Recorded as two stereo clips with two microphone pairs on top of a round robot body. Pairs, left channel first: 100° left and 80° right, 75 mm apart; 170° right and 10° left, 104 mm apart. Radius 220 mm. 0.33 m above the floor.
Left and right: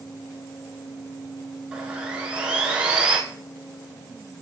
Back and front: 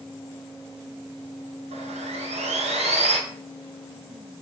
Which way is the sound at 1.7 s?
5° right.